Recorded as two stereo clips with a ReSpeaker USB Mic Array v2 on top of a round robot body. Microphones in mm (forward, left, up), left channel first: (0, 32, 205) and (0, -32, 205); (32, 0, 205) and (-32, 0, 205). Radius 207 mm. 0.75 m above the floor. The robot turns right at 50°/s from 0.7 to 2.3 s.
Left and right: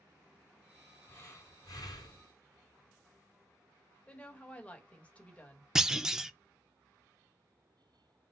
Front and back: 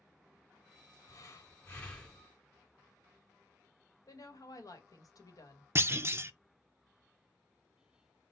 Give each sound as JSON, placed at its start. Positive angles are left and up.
{"t": 1.1, "sound": "breathing", "azimuth_deg": 25, "distance_m": 2.0}
{"t": 4.1, "sound": "a woman speaking", "azimuth_deg": 20, "distance_m": 1.5}
{"t": 5.8, "sound": "a clunk", "azimuth_deg": -165, "distance_m": 0.7}